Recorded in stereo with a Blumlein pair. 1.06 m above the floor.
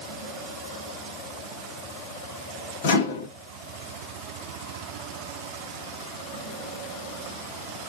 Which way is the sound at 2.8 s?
55° left.